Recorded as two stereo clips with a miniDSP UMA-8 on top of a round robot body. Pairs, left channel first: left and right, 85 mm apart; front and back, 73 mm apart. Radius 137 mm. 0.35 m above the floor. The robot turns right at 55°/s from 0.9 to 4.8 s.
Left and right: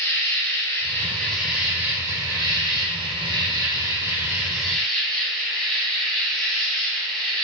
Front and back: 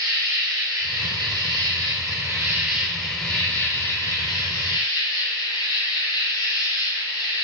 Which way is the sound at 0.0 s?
150° left.